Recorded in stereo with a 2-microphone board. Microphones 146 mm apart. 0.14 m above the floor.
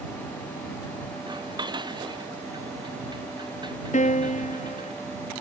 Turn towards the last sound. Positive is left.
turn(degrees=60)  # may be behind; listen again after turning